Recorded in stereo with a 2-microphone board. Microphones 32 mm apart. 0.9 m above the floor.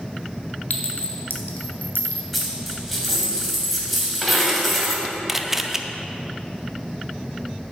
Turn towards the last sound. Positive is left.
turn(degrees=-15)  # may be behind; listen again after turning